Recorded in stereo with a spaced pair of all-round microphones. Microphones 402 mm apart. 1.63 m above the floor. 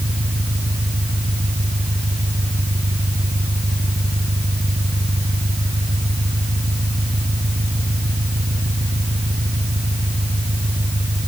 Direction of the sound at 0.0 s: 20° right (ahead or behind).